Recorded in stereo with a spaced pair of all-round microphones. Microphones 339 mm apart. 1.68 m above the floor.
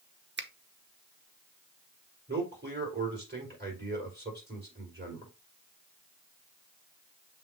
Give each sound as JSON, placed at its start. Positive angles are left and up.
{"t": 0.4, "sound": "a finger snap", "side_deg": -30, "distance_m": 0.7}
{"t": 2.3, "sound": "a man speaking", "side_deg": -30, "distance_m": 4.5}